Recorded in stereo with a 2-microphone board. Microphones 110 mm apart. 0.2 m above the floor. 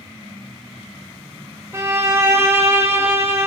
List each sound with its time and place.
1.7 s a violin: 25° right (ahead or behind), 3 m